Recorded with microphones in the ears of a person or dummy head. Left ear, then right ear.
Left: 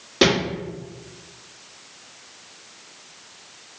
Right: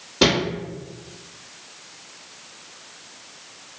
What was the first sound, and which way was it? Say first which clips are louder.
A thud: even; 45° left (ahead or behind).